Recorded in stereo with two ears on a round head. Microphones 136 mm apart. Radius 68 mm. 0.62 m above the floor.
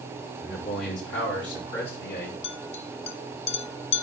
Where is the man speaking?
80° left, 6.5 m; by 2.3 s 70° left (ahead or behind), 7 m.